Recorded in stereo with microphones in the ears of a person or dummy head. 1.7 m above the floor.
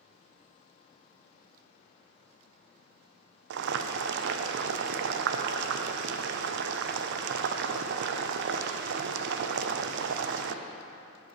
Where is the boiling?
65° right (ahead or behind), 0.6 m.